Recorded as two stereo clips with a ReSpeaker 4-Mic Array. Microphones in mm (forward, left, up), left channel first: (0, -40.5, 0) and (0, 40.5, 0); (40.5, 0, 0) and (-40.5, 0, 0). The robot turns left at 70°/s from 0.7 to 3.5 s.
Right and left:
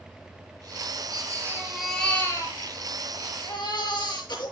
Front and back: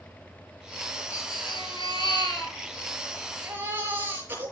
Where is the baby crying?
55° left, 6 m; by 4.5 s 115° right, 6 m.